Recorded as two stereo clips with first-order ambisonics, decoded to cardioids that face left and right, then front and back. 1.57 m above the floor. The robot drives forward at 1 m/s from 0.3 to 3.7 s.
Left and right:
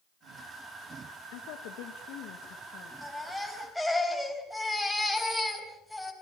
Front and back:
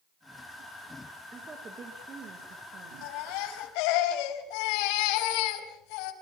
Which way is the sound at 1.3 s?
105° left.